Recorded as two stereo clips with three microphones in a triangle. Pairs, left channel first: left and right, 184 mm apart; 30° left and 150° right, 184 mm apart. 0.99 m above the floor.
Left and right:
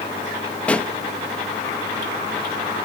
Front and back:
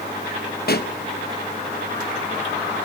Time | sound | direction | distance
0.7 | a pop | 5° left | 1.2 m